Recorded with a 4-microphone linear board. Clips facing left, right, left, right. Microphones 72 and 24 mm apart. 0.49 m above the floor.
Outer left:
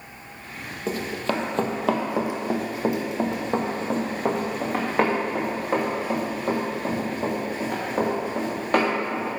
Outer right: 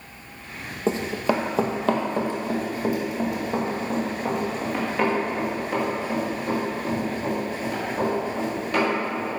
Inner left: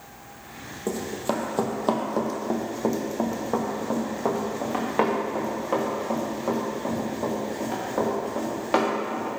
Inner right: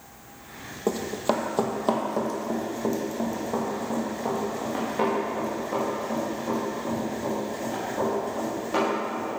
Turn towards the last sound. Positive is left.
turn(degrees=50)  # may be behind; listen again after turning